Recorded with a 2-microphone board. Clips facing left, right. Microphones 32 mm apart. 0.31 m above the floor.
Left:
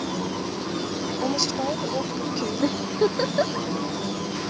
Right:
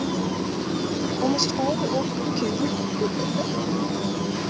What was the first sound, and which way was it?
A woman speaking, 10° right (ahead or behind).